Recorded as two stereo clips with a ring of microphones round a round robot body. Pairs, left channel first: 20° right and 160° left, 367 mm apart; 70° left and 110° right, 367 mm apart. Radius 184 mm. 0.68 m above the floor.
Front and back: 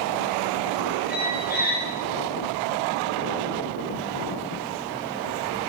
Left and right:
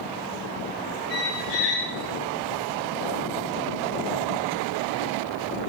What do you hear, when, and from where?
1.1 s a squeak: 45° left, 2.5 m